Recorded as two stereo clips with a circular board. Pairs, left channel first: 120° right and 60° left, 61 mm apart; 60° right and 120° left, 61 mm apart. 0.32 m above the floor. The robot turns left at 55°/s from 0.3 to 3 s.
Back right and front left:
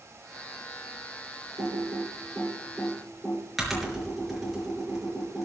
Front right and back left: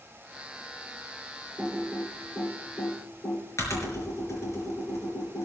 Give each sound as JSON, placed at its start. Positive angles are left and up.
{"t": 1.6, "sound": "typing on a keyboard", "azimuth_deg": 55, "distance_m": 5.0}